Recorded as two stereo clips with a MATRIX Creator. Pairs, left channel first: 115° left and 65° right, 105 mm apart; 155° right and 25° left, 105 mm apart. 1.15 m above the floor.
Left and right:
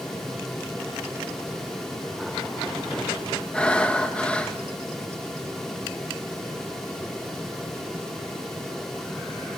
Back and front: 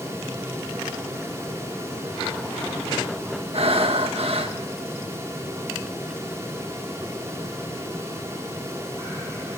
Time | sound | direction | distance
3.5 | breathing | 35° left | 1.6 m